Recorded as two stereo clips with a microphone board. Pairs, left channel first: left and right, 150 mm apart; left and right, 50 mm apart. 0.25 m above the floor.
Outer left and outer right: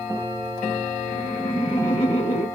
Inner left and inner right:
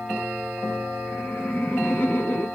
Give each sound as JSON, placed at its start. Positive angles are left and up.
{"t": 1.1, "sound": "laughter", "side_deg": 30, "distance_m": 2.5}